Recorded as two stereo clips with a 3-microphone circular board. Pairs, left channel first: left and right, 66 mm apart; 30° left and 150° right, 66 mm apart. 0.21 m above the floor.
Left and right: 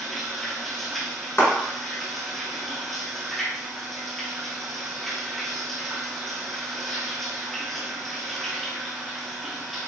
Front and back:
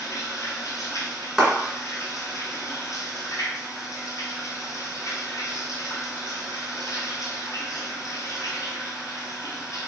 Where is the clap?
125° left, 1.8 m.